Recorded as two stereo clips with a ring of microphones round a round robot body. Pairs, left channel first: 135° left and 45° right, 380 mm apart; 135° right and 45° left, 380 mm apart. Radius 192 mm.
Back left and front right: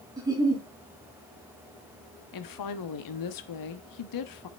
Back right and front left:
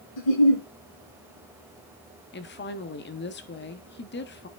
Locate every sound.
0.2 s a giggle: 125° right, 4 m
2.3 s a woman speaking: 165° left, 1.1 m